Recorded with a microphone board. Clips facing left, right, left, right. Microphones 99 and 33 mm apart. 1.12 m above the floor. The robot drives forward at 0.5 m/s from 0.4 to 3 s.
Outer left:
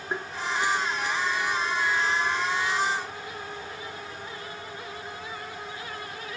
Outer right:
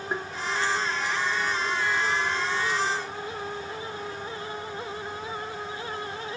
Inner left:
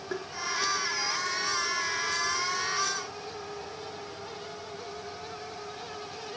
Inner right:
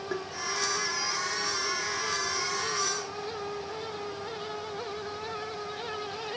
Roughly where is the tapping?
Centre.